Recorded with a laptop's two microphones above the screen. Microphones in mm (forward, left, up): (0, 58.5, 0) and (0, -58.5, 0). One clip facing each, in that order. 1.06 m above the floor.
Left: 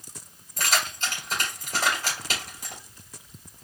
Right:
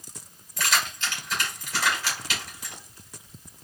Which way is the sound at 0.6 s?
45° left (ahead or behind).